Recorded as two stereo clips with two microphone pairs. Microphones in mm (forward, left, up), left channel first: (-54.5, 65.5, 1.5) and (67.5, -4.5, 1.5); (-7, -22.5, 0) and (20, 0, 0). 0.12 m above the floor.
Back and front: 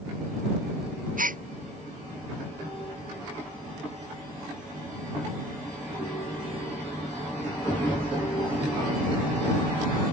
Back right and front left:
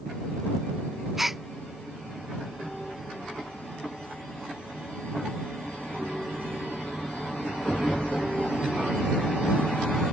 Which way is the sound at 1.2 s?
45° right.